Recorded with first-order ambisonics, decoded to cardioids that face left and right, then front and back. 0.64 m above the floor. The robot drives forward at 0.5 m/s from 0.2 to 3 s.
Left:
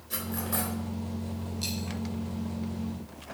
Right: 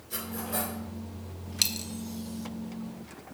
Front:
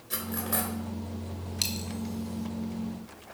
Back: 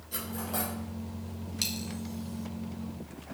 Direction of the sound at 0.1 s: 15° left.